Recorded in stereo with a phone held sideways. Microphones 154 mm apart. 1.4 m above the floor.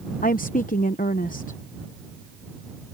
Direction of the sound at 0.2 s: 60° left (ahead or behind).